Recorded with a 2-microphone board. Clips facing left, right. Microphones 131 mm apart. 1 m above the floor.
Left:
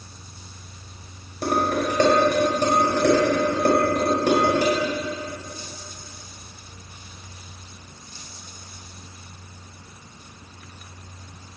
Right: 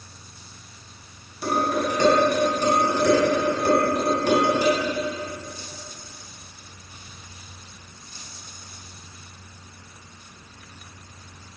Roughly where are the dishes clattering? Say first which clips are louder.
Left 1 dB; left.